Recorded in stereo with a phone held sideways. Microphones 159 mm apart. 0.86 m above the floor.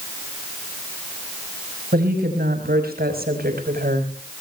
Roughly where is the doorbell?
I don't hear a doorbell.